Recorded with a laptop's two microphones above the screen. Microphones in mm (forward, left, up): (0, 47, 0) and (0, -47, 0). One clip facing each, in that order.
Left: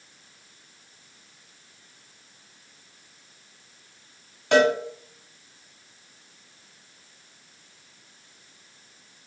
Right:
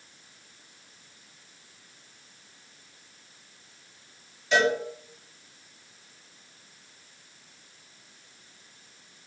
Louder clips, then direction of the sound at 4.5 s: Left 5 dB; 60° left (ahead or behind).